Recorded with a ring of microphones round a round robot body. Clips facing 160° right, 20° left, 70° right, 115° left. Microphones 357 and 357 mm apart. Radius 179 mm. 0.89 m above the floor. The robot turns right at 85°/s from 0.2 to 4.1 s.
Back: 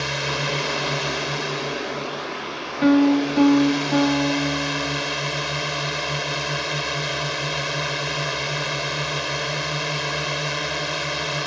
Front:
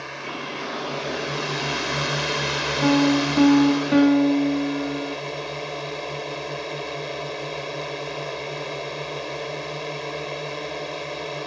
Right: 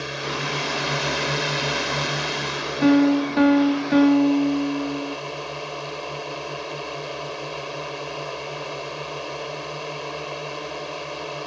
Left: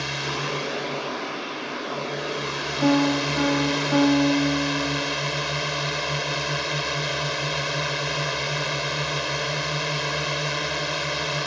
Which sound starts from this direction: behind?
A drone, at 0.0 s.